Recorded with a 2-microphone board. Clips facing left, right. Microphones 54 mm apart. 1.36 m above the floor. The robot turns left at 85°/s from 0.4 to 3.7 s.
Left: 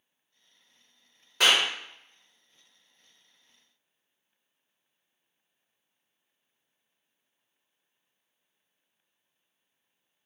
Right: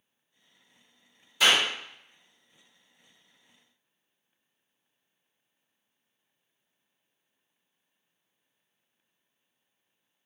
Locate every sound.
1.4 s a clap: 70° left (ahead or behind), 1.4 m; by 1.7 s 45° left (ahead or behind), 1.4 m